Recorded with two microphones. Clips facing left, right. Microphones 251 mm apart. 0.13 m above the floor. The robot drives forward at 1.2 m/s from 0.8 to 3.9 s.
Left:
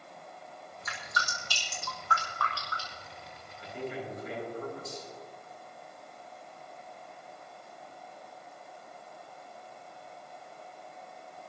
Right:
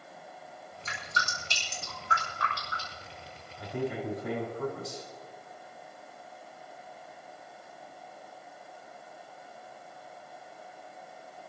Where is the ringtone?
No ringtone in this recording.